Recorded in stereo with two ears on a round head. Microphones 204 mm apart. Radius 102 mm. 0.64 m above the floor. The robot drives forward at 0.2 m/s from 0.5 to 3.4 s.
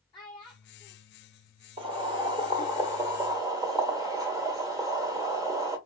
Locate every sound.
0.1 s a child speaking: 20° left (ahead or behind), 0.6 m; by 1.0 s 15° left (ahead or behind), 0.6 m
1.8 s boiling: 25° right (ahead or behind), 0.8 m; by 5.8 s 15° right (ahead or behind), 1.2 m